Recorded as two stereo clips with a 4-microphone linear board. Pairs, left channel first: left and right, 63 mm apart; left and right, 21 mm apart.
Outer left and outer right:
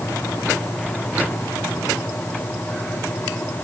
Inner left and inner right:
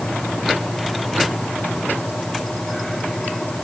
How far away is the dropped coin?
I don't hear a dropped coin.